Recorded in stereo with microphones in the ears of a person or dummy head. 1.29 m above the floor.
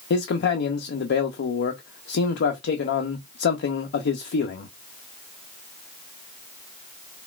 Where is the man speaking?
50° left (ahead or behind), 0.5 m.